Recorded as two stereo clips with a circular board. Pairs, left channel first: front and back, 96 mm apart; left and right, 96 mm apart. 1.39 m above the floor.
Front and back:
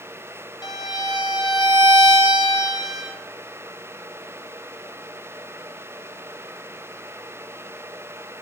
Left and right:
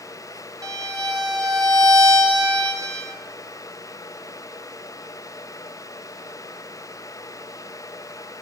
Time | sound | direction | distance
0.6 | a violin | 45° right | 0.7 m